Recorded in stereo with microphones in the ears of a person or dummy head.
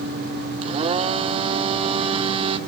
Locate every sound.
0.6 s a blender: 35° right (ahead or behind), 1.0 m